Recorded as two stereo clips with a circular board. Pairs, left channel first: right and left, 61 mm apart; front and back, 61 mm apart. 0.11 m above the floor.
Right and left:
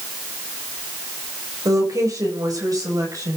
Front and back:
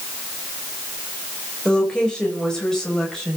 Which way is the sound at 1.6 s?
75° left.